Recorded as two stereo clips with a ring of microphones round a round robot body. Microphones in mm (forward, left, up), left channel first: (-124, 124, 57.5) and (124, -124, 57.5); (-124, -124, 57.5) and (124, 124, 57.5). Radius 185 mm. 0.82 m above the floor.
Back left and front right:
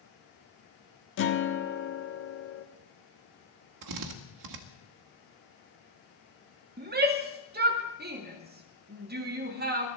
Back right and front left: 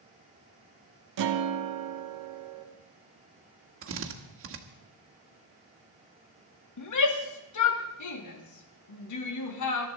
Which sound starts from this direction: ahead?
A drill, at 3.8 s.